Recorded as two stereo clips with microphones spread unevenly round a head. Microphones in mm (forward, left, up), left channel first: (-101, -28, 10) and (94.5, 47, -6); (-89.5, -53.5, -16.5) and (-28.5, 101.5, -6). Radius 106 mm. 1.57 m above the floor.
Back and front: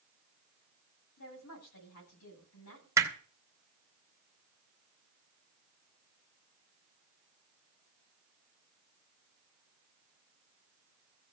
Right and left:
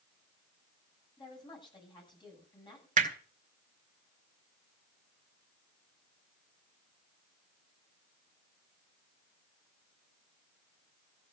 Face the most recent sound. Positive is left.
turn(degrees=100)